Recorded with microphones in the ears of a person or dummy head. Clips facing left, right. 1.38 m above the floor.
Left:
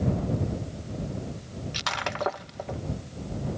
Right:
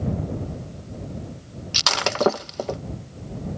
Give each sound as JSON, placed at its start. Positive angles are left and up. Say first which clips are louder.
{"t": 1.7, "sound": "breaking glass", "louder": "right 9 dB", "side_deg": -40}